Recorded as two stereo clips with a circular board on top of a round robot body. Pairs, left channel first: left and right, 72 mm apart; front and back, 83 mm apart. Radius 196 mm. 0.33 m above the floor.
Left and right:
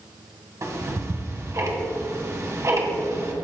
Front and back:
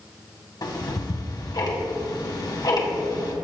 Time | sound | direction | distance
0.6 | ticking | 40° right | 2 m